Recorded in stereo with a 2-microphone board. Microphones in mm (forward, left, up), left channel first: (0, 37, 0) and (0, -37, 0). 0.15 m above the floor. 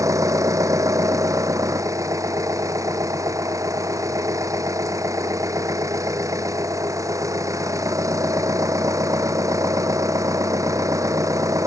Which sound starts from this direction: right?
An engine running, at 0.0 s.